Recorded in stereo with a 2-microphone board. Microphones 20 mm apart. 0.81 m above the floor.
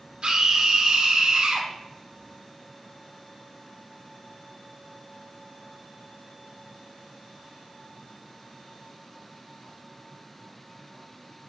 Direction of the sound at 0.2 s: 60° right (ahead or behind).